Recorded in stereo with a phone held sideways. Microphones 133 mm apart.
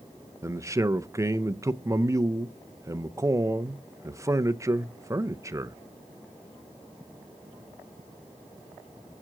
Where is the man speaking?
25° right (ahead or behind), 0.5 m.